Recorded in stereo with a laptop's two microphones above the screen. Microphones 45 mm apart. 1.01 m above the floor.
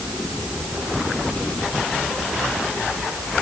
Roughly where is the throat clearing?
I don't hear throat clearing.